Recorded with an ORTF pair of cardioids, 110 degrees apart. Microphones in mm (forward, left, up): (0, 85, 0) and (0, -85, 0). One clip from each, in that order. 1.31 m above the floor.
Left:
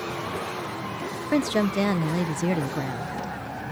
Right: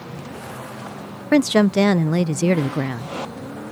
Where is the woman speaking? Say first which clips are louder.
Right 8 dB; 35° right.